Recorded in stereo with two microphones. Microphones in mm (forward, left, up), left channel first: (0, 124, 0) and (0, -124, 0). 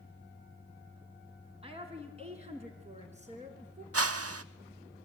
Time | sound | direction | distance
1.6 | a woman speaking | 25° right (ahead or behind) | 4 m
3.9 | a whoosh | 70° right (ahead or behind) | 0.7 m